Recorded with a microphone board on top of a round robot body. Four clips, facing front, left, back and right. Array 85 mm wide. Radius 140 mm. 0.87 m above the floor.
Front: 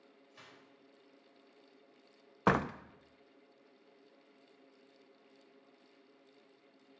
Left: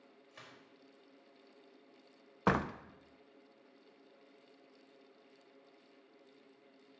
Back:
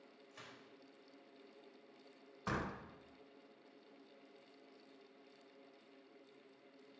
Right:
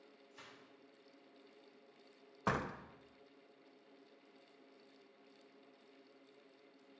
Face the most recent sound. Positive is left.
turn(degrees=25)